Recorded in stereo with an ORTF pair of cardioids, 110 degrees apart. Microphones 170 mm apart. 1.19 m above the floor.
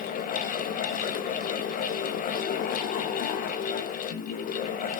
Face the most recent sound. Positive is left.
turn(degrees=55)